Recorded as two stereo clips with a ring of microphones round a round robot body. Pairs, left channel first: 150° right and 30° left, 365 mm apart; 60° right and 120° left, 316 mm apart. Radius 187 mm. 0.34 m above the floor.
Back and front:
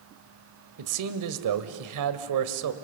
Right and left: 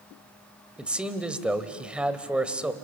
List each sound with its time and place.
0.8 s a man speaking: 35° left, 1.5 m